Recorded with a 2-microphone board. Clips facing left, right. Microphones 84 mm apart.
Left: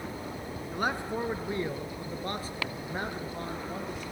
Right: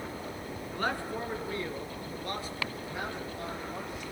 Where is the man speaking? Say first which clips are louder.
Left 2 dB; 15° left (ahead or behind), 2.5 m; by 4.0 s 45° left (ahead or behind), 5 m.